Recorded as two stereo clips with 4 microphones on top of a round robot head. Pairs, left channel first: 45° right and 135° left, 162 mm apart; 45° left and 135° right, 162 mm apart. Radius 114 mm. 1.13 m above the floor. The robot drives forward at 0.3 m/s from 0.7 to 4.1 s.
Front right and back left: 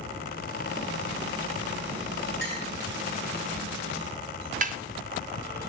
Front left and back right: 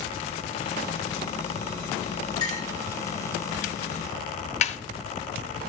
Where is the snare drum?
95° left, 0.8 m.